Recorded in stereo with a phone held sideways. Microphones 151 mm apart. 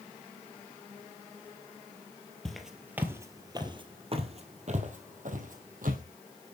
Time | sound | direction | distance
2.5 | footsteps | 5° left (ahead or behind) | 2 m